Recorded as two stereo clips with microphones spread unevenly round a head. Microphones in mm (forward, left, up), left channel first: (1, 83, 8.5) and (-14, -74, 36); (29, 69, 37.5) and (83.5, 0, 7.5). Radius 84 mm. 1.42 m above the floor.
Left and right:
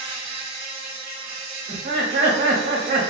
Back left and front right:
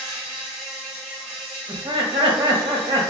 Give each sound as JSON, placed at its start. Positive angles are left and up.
{"t": 0.0, "sound": "an insect", "azimuth_deg": -65, "distance_m": 1.8}
{"t": 1.7, "sound": "laughter", "azimuth_deg": -80, "distance_m": 1.0}